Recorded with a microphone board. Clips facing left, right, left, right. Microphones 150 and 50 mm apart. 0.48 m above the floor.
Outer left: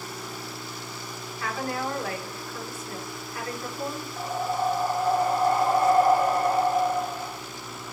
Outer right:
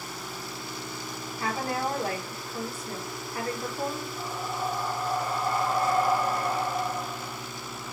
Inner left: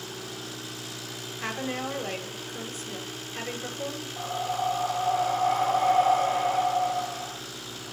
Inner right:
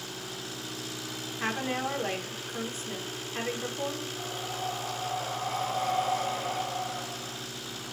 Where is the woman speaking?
30° right (ahead or behind), 0.8 m.